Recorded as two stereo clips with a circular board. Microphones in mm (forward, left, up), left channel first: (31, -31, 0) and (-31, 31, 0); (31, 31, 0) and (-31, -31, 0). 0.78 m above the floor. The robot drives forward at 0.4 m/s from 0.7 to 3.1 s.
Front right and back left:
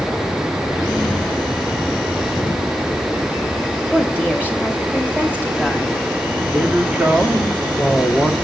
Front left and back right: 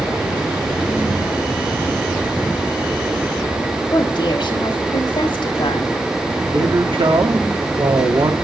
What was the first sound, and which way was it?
A woman speaking, 60° left.